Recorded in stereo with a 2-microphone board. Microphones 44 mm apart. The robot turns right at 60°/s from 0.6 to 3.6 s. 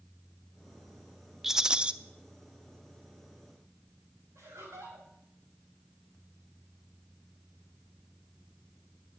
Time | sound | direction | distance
1.4 | a rattle | 5° right (ahead or behind) | 0.5 m
4.3 | laughter | 85° right | 5.5 m